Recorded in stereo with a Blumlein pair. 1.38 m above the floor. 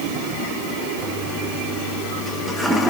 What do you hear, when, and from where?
1.0 s a toilet flushing: 5° right, 1.4 m